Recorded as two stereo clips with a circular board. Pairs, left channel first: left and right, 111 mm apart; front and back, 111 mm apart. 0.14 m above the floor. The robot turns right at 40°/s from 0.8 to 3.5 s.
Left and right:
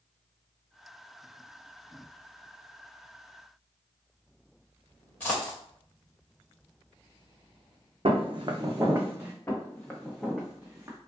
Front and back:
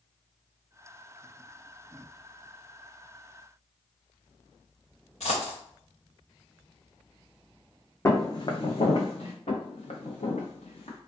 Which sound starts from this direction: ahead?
A dropped coin, at 5.2 s.